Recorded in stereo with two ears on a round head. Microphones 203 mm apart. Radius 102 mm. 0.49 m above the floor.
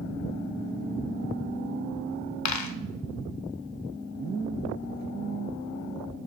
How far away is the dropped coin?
About 0.6 m.